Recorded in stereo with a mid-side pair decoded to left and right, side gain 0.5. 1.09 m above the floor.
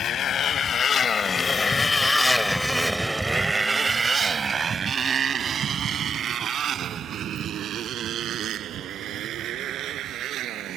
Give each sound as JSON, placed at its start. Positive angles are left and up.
{"t": 0.0, "sound": "a motorcycle", "azimuth_deg": 55}